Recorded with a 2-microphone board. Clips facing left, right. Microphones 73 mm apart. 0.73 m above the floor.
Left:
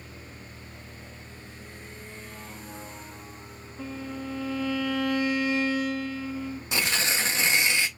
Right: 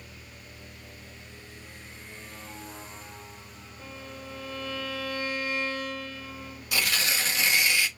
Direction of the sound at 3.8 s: 85° left.